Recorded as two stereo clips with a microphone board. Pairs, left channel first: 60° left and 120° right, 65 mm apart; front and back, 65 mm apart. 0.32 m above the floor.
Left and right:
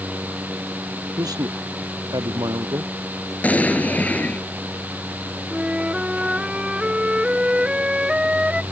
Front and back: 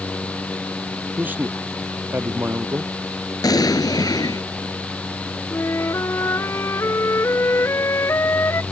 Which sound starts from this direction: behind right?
A man speaking, at 1.2 s.